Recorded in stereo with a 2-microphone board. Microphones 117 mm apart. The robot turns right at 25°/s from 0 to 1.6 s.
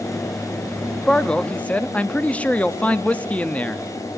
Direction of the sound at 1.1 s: 5° left (ahead or behind).